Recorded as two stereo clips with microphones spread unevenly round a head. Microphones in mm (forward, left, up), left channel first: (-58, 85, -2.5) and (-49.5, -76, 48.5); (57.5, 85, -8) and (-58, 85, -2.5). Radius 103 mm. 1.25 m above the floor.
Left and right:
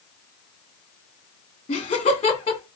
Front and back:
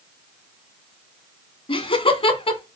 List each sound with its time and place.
1.7 s laughter: 35° left, 2.5 m